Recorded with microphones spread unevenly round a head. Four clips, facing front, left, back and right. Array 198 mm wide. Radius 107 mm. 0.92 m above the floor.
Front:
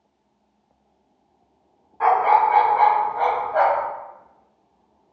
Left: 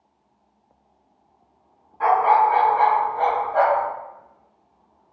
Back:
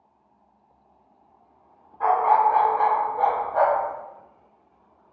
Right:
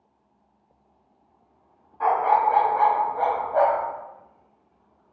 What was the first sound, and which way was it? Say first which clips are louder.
A dog barking: left 3 dB, front 2 dB; 5° right.